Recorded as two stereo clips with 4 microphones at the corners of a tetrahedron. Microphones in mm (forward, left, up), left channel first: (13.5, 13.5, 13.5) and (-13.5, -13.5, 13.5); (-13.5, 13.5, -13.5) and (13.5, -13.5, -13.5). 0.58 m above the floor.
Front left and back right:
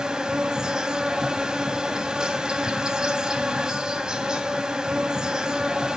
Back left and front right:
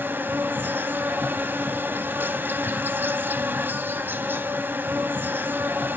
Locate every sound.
0.0 s an insect: 65° right, 0.8 m